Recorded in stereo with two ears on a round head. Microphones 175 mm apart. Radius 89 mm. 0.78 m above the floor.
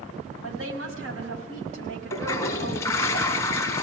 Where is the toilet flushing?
15° left (ahead or behind), 1.8 m.